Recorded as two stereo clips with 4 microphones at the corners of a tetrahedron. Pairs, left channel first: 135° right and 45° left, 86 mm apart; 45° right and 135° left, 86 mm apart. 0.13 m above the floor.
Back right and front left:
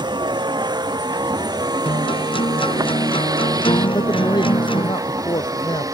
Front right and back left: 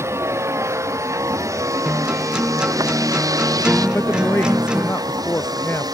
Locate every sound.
0.0 s a vehicle: 75° left; by 6.0 s 95° left
1.9 s a guitar: 145° right
3.9 s a woman speaking: 110° right